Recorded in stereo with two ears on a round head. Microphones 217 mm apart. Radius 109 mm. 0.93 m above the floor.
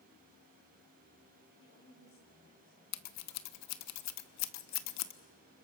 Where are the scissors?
70° left (ahead or behind), 1.0 m.